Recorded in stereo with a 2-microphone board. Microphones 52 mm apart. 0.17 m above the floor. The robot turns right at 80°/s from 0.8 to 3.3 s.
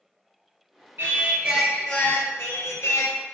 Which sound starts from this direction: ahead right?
Singing, at 1.0 s.